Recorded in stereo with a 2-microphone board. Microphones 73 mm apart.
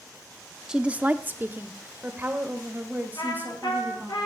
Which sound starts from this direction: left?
A trumpet, at 3.2 s.